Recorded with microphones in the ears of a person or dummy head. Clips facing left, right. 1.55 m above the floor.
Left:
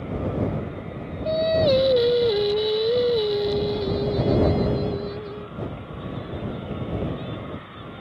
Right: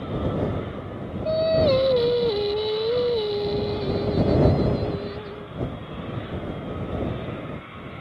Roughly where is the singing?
Centre.